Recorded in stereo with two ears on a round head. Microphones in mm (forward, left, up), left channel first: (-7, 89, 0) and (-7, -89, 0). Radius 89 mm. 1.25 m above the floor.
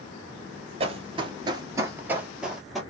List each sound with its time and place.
0.8 s running footsteps: 30° right (ahead or behind), 1.4 m; by 2.8 s centre (ahead or behind), 1.8 m